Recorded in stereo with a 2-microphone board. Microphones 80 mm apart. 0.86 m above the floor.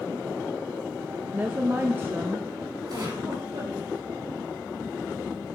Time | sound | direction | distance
1.3 | a woman speaking | 25° right (ahead or behind) | 0.6 m
2.9 | a giggle | 65° right (ahead or behind) | 5 m